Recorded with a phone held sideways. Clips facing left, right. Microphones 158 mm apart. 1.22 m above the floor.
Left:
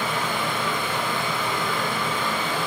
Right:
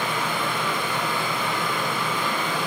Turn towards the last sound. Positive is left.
turn(degrees=30)  # may be behind; listen again after turning